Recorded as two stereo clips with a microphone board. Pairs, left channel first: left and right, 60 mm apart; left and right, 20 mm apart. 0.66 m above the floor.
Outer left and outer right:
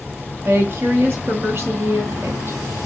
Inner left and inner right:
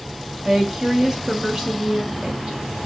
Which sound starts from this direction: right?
A woman speaking, at 0.5 s.